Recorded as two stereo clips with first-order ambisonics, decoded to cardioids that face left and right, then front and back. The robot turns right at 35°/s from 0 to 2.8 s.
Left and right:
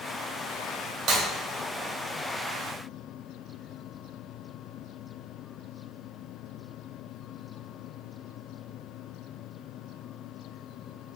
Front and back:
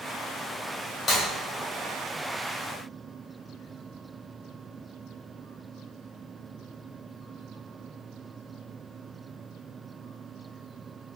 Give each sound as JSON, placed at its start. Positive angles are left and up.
{"t": 1.1, "sound": "breaking glass", "azimuth_deg": -55, "distance_m": 1.8}